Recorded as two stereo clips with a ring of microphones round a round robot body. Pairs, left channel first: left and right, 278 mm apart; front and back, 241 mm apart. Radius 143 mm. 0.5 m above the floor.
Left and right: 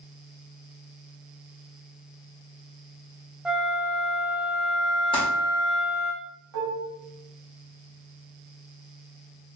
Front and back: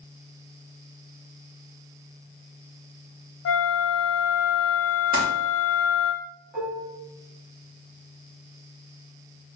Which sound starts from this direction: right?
Dishes clattering, at 6.5 s.